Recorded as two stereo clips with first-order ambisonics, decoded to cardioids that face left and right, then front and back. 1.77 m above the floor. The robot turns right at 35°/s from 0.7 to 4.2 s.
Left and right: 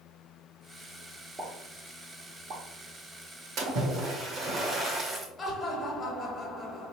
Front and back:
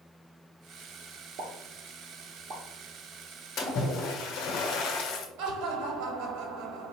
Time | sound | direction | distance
1.4 | a pop | 170° right | 0.9 m
3.6 | a splash | 50° right | 0.9 m
5.4 | laughter | 165° left | 1.2 m